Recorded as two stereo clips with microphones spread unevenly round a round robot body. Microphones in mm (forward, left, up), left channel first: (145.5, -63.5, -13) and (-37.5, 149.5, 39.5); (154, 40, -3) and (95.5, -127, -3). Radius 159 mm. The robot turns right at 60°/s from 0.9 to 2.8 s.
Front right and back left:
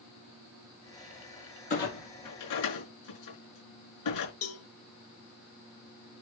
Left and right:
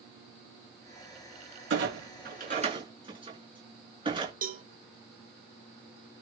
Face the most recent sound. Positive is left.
turn(degrees=-75)